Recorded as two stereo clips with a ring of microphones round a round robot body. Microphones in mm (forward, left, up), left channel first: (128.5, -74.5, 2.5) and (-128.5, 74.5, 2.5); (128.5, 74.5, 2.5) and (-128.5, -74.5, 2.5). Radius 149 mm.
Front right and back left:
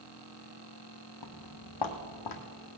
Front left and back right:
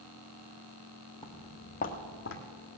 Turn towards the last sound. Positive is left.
turn(degrees=-20)